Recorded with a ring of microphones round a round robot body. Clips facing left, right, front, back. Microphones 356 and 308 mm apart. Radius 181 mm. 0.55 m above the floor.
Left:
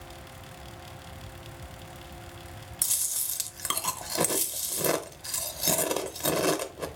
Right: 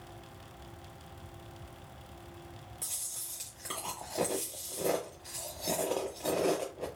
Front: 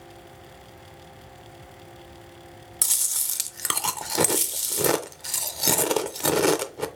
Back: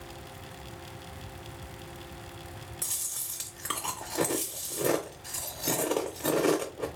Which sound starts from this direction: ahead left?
Chewing, at 2.8 s.